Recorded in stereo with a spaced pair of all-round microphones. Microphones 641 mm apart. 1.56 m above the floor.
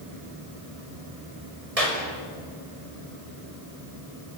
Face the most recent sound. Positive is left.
turn(degrees=-65)  # may be behind; listen again after turning